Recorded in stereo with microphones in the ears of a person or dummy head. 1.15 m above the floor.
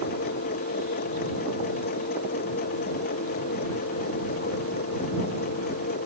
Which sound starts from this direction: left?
A machine running, at 0.0 s.